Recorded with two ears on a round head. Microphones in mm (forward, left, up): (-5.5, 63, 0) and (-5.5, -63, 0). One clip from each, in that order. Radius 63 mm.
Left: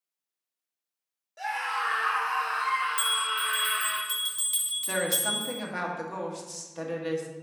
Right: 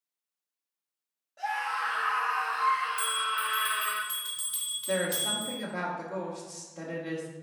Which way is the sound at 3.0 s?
35° left (ahead or behind).